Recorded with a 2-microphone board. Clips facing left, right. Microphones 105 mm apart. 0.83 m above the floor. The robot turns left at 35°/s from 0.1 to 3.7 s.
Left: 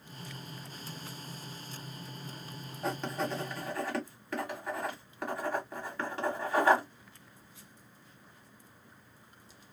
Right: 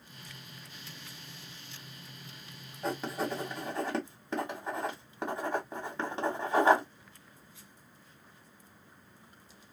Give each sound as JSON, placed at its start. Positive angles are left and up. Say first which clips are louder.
{"t": 2.8, "sound": "writing", "louder": "even", "side_deg": 0, "distance_m": 1.1}